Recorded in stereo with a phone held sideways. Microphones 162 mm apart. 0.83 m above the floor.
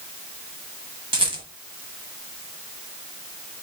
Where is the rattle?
35° right (ahead or behind), 1.0 m.